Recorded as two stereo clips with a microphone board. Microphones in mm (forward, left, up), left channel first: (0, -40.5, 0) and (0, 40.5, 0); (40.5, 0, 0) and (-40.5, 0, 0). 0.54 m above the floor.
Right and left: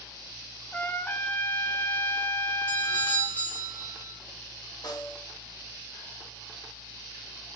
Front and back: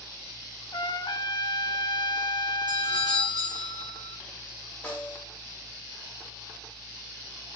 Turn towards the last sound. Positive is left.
turn(degrees=-65)